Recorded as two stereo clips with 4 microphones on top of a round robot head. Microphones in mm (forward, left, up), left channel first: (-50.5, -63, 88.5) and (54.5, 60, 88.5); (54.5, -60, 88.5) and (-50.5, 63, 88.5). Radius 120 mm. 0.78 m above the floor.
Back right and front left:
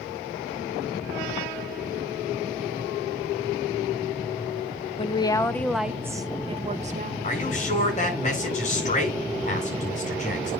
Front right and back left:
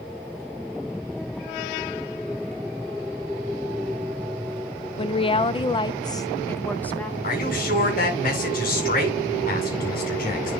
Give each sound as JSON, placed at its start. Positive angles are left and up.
{"t": 5.0, "sound": "a woman speaking", "azimuth_deg": -90, "distance_m": 1.0}
{"t": 7.2, "sound": "a man speaking", "azimuth_deg": -85, "distance_m": 7.5}